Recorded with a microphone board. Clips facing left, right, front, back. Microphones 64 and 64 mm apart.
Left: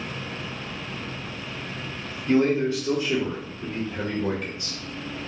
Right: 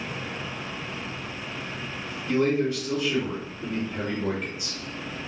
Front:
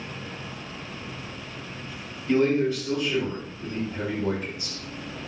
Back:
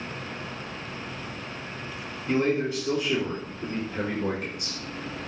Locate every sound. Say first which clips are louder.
2.3 s a man speaking: left 3 dB, front 3 dB; 110° left, 1.0 m; by 4.8 s 155° right, 1.1 m